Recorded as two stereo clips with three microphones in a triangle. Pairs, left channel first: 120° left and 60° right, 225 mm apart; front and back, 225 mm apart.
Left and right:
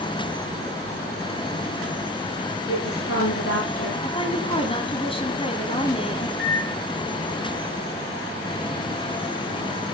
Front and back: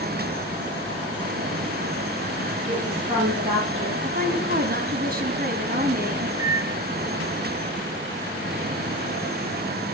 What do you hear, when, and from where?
2.7 s a woman speaking: 115° left, 7 m
4.0 s a woman speaking: 175° left, 2.0 m
6.4 s a microwave: 45° right, 2.5 m